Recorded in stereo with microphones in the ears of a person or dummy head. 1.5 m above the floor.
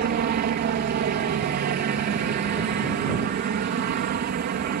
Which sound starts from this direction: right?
A helicopter, at 0.0 s.